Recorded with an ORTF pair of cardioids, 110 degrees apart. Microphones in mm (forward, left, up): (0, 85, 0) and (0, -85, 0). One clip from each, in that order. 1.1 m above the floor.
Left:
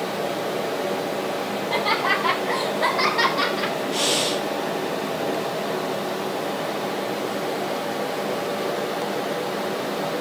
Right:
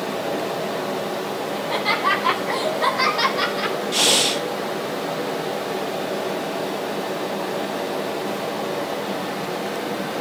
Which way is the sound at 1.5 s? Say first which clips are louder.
Right 1 dB; 5° right.